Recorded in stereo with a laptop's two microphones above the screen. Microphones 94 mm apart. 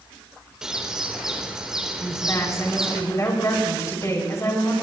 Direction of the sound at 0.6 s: 5° right (ahead or behind).